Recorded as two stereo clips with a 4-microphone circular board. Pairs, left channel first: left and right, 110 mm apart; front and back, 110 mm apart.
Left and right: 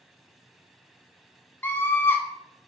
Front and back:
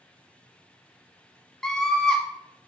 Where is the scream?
70° left, 1.2 m.